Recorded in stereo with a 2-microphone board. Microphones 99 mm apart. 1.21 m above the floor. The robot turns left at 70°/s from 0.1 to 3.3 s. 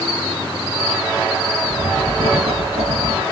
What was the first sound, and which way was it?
Writing, 25° right.